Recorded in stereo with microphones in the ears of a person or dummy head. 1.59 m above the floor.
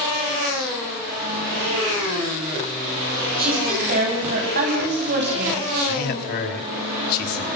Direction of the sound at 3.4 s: 40° right (ahead or behind).